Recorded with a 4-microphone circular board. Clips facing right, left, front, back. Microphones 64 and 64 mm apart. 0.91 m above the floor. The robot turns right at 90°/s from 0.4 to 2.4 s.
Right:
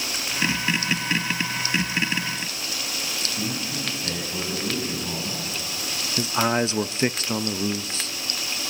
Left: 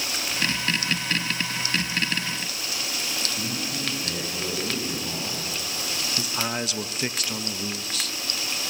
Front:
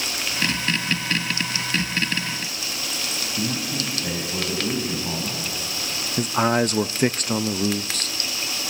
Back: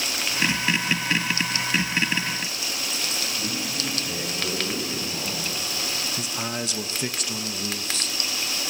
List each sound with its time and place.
3.4 s a man speaking: 5° right, 6.5 m
6.2 s a man speaking: 35° right, 0.6 m